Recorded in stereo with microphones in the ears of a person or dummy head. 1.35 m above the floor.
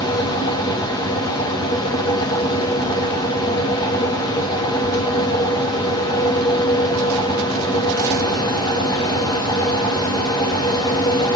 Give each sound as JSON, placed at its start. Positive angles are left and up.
{"t": 0.0, "sound": "a fan", "side_deg": 20, "distance_m": 1.1}